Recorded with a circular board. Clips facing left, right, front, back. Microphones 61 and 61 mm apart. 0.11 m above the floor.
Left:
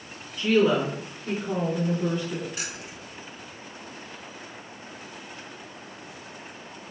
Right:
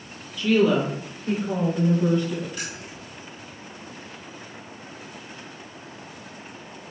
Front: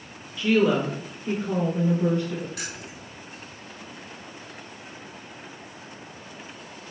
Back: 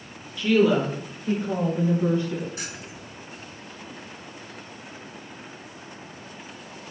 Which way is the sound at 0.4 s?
75° left.